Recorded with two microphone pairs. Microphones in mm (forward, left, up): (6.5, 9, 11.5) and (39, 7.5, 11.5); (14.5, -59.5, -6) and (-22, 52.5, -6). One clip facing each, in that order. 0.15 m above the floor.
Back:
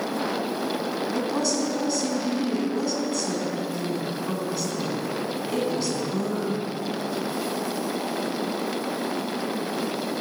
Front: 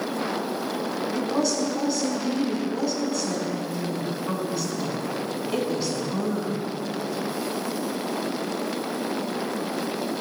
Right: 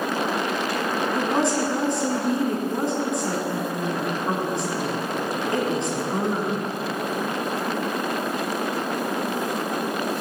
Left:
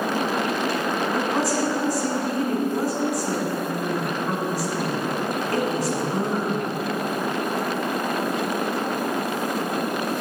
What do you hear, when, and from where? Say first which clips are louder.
1.1 s a woman speaking: front 2 dB, right 3 dB; 75° right, 1.5 m